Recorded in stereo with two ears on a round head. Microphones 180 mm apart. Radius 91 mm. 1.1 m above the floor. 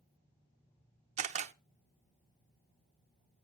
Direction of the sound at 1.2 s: 35° right (ahead or behind).